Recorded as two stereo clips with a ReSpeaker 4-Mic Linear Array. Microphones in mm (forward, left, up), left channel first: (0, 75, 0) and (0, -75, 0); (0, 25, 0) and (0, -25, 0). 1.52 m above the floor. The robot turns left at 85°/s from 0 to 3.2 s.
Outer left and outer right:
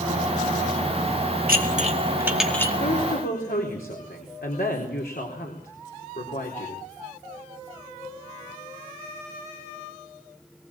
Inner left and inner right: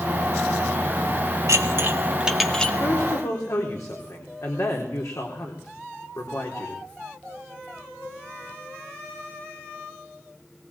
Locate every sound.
1.5 s dishes clattering: 75° right (ahead or behind), 2 m; by 2.7 s 20° left (ahead or behind), 2 m
2.8 s a woman speaking: 120° left, 4 m; by 6.8 s 85° left, 4 m